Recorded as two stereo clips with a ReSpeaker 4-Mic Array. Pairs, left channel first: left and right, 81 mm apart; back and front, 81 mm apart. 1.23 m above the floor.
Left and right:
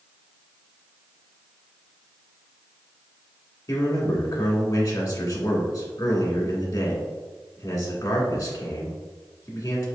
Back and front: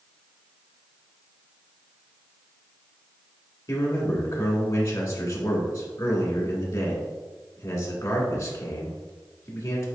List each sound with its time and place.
3.7 s a man speaking: 135° left, 1.8 m